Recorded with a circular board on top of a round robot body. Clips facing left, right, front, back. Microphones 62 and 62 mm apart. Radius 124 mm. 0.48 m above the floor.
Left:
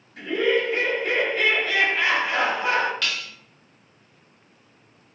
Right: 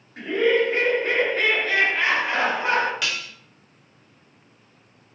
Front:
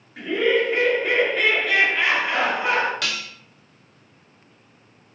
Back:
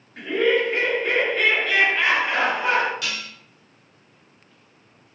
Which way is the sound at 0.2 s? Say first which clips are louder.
Right 2 dB, even; 90° right.